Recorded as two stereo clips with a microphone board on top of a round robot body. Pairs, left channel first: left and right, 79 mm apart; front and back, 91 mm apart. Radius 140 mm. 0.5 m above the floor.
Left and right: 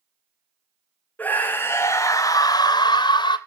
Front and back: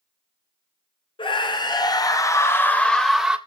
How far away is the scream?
About 3 m.